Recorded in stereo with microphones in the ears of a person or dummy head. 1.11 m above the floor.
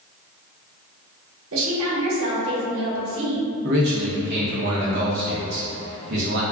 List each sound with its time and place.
1.5 s a woman speaking: 70° right (ahead or behind), 0.9 m
3.6 s a man speaking: 60° right (ahead or behind), 0.8 m